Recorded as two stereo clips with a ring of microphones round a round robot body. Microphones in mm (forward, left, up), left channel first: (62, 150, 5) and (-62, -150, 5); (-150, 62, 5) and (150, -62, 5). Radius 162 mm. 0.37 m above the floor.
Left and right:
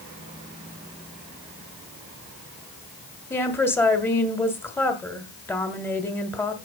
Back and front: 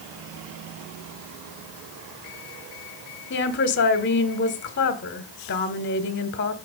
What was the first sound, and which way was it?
A woman speaking, 145° left.